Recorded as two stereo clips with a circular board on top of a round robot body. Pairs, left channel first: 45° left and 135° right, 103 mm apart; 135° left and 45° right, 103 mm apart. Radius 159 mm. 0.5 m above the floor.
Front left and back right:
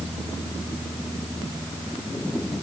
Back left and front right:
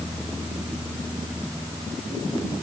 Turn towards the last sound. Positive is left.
No sound to turn to.